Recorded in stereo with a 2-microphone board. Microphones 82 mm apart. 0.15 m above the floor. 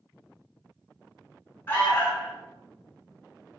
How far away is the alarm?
About 0.8 m.